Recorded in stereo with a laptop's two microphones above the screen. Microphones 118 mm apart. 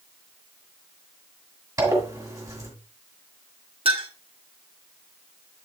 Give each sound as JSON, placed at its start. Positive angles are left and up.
{"t": 1.8, "sound": "a zipper", "side_deg": -30, "distance_m": 1.8}
{"t": 3.9, "sound": "a clink", "side_deg": -50, "distance_m": 1.2}